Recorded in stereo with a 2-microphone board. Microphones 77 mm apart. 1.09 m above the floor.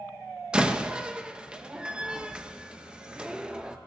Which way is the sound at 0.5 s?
15° right (ahead or behind).